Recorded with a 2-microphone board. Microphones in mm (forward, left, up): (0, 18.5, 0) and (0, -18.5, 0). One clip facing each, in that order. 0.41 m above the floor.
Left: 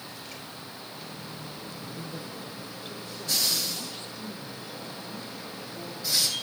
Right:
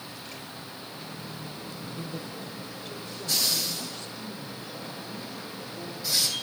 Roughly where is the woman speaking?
Centre.